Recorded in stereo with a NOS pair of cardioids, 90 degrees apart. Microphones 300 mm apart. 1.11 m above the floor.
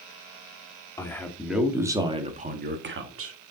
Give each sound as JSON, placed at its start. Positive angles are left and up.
{"t": 1.0, "sound": "a man speaking", "azimuth_deg": 10, "distance_m": 2.5}